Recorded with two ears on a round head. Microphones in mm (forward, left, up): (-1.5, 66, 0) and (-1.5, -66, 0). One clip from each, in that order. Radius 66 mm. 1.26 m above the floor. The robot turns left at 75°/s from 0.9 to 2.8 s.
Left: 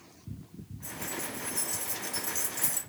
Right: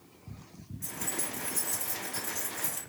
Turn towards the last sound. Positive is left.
turn(degrees=110)